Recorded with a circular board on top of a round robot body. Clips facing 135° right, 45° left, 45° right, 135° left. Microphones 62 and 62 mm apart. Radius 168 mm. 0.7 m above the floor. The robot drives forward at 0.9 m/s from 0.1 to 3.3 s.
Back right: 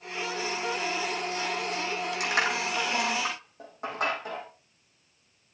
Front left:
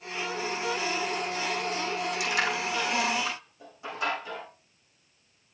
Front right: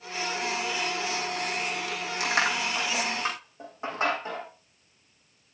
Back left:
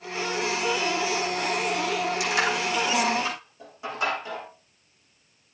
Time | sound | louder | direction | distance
2.2 | crushing | back right 3 dB, back left 1 dB | 90° right | 6.5 m